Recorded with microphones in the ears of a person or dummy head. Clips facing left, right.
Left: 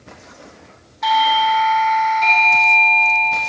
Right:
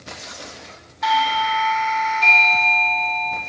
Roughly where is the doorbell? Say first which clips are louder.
Left 4 dB; centre.